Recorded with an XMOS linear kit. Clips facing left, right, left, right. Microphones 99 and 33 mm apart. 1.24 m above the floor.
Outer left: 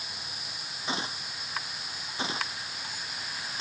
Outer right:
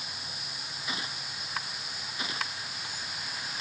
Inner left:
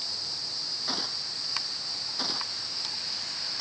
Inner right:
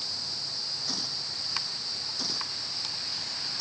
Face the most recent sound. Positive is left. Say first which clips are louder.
# outer left 5 dB, inner left 1 dB
turn(degrees=30)  # may be behind; listen again after turning